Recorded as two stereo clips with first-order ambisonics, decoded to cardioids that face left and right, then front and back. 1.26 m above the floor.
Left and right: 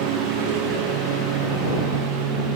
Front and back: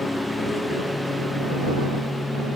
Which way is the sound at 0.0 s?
80° right.